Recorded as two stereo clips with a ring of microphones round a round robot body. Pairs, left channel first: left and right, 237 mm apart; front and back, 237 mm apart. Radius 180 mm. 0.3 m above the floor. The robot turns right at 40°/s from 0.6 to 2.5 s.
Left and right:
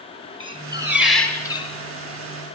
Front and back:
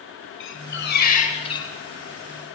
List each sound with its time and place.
0.4 s a squeak: 20° right, 7 m; by 1.7 s 25° left, 7 m